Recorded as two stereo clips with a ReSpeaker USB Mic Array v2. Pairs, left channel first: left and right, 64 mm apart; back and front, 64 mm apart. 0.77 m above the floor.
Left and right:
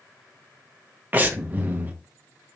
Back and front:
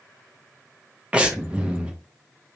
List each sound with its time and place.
1.1 s breathing: 55° right, 0.6 m